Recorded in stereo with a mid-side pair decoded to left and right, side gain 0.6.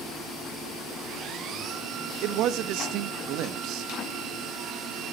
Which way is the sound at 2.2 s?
65° right.